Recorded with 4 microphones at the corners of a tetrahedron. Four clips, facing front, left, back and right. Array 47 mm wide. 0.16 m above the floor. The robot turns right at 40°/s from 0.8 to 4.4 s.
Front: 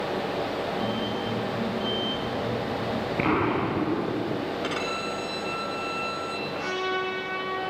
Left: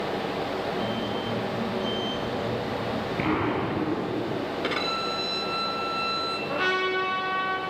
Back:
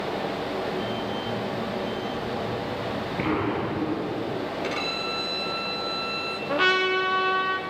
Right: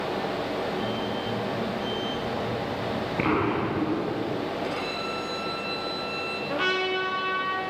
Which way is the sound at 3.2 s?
40° right.